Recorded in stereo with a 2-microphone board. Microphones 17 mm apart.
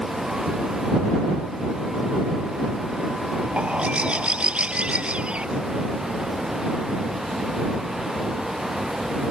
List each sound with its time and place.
3.6 s a bird: 80° right